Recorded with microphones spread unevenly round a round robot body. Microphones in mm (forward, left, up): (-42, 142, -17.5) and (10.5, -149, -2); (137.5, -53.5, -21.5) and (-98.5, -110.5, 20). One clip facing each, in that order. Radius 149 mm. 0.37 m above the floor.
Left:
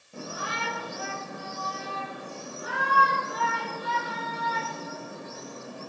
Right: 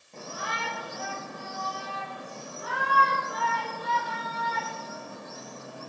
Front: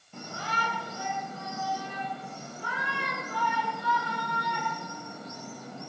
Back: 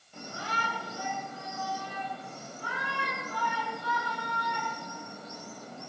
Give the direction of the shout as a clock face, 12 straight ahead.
11 o'clock.